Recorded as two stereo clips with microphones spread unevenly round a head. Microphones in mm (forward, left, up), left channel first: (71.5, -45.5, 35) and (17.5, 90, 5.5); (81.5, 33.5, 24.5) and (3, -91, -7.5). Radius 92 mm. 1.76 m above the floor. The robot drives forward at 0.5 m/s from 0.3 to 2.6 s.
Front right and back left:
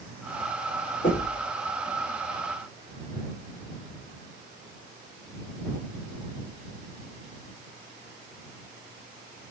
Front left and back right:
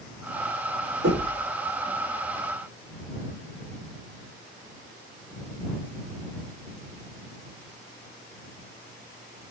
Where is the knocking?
105° right, 5 m; by 1.4 s 110° right, 5 m.